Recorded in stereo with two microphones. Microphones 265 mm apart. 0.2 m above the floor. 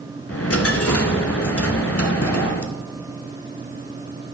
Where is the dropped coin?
60° left (ahead or behind), 0.9 m.